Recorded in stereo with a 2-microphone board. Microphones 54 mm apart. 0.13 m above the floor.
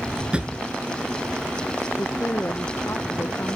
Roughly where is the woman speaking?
Left.